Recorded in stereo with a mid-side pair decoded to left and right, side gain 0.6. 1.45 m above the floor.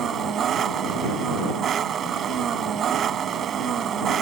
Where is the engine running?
45° right.